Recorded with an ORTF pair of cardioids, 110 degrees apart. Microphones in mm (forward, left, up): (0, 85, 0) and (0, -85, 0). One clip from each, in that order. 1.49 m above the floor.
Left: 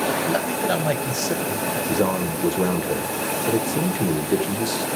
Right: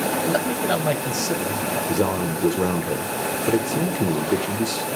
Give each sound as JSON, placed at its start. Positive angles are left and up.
{"t": 0.2, "sound": "a man speaking", "azimuth_deg": -5, "distance_m": 1.4}
{"t": 1.9, "sound": "a man speaking", "azimuth_deg": -10, "distance_m": 1.3}